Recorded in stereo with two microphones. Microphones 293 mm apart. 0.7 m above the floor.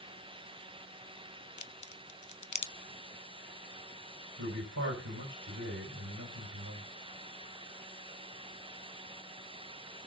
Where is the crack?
80° left, 0.6 m.